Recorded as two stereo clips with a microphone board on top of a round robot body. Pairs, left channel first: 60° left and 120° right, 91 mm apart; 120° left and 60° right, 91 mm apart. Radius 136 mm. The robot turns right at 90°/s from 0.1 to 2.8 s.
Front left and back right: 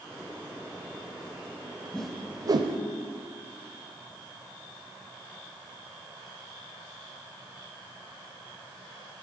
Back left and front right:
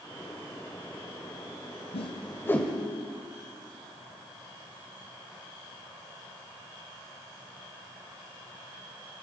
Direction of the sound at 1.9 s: 140° left.